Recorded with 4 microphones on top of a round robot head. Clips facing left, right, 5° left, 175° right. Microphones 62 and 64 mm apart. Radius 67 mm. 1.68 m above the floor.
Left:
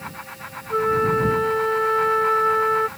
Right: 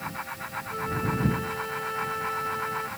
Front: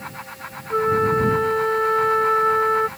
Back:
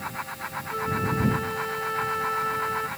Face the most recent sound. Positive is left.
turn(degrees=50)